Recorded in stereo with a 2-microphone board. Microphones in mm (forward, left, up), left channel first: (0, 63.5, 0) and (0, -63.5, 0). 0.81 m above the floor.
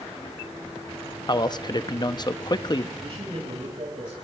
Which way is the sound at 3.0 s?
70° right (ahead or behind).